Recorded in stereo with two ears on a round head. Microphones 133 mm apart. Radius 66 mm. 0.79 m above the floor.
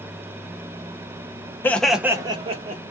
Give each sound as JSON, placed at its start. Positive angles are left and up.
{"t": 1.6, "sound": "laughter", "side_deg": 15, "distance_m": 0.5}